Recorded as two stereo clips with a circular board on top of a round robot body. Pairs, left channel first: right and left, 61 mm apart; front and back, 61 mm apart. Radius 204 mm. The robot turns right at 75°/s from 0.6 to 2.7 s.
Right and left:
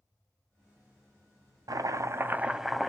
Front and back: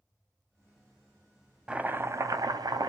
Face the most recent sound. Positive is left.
turn(degrees=180)